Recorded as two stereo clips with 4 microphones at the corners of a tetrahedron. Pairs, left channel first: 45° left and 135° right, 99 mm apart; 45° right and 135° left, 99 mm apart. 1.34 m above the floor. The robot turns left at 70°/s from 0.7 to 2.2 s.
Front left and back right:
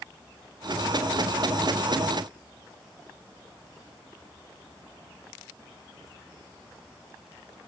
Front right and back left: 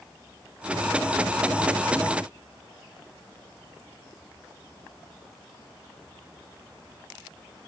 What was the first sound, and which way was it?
Only background noise.